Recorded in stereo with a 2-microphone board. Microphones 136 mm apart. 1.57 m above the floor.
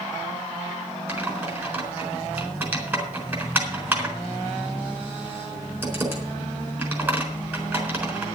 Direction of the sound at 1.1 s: 15° right (ahead or behind).